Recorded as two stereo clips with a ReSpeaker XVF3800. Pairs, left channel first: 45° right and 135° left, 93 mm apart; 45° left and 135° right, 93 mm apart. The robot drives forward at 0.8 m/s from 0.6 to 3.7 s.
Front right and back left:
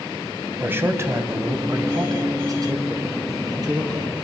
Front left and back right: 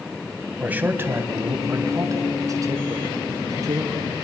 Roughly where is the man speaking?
Behind.